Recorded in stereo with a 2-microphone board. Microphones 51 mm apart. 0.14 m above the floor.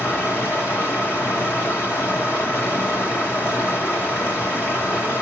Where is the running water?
45° left (ahead or behind), 1.2 m.